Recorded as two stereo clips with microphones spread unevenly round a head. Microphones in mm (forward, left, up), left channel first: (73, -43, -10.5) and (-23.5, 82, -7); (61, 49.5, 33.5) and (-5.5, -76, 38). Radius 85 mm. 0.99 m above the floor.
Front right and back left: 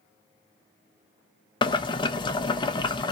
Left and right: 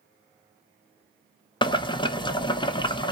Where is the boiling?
5° left, 0.7 m.